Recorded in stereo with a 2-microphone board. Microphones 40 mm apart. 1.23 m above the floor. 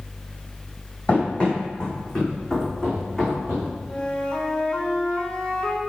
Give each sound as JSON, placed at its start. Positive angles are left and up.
{"t": 1.1, "sound": "running footsteps", "side_deg": 30, "distance_m": 2.5}
{"t": 3.9, "sound": "a flute", "side_deg": 25, "distance_m": 1.1}